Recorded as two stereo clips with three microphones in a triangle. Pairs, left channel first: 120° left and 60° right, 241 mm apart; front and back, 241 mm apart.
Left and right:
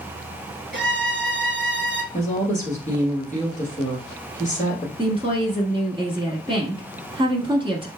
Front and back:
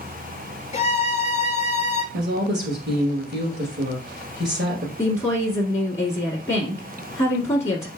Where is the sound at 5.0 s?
60° right, 1.1 m.